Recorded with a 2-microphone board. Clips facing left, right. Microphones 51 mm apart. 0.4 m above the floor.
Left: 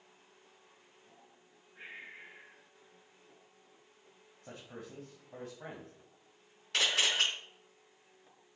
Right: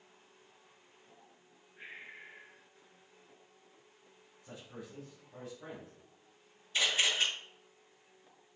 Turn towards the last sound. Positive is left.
turn(degrees=75)  # may be behind; listen again after turning